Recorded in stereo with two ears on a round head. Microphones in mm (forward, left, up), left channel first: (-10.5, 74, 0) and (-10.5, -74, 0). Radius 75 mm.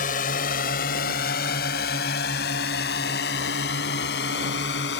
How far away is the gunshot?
No gunshot in this recording.